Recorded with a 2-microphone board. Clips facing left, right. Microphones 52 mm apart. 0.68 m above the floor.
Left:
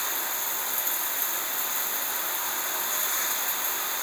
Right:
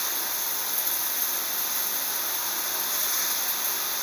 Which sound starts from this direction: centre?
Running water, at 0.0 s.